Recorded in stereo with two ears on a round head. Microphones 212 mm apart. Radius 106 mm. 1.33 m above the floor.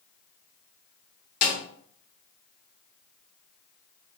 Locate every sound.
1.4 s a snare drum: 40° left (ahead or behind), 1.4 m